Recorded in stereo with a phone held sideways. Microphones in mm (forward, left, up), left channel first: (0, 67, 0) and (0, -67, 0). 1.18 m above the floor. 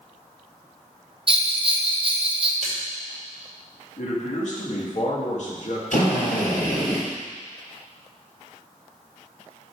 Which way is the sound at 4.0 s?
60° left (ahead or behind).